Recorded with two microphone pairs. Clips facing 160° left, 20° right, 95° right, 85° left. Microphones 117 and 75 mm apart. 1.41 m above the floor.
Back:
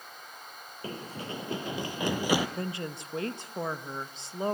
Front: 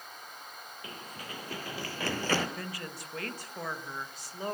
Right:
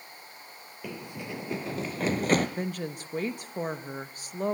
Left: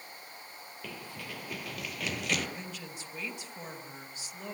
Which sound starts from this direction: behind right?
A woman speaking, at 2.6 s.